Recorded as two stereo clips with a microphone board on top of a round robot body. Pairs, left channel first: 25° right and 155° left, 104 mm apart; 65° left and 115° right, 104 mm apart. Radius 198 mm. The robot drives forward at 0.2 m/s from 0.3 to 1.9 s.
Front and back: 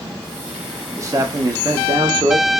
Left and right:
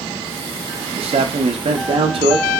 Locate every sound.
1.0 s a man speaking: 140° right, 0.5 m; by 2.5 s 150° right, 0.7 m